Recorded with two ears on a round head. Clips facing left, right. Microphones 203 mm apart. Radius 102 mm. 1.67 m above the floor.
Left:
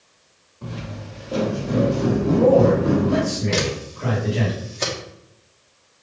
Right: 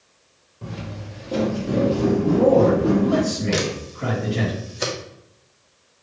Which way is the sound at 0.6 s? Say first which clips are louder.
Even; 25° right (ahead or behind).